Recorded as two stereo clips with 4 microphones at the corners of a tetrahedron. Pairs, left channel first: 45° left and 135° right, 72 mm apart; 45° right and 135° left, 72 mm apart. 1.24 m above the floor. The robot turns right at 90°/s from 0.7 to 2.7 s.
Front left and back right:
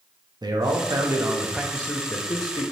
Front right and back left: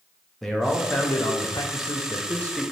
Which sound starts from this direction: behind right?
A man speaking, at 0.4 s.